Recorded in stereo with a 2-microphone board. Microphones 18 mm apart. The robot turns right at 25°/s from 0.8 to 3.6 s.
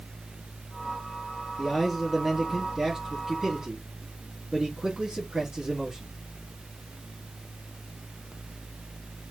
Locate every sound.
1.6 s a man speaking: 175° right, 1.7 m; by 6.1 s 125° right, 1.7 m